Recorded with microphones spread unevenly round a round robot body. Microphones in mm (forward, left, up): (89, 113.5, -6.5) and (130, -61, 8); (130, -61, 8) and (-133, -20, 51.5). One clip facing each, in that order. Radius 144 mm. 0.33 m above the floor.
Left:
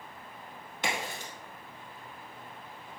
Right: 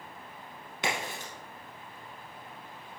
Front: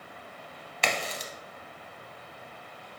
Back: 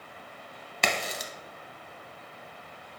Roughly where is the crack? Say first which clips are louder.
Right 1 dB, back 1 dB; behind right.